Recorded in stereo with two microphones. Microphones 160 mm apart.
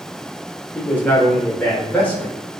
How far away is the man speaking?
About 1.2 m.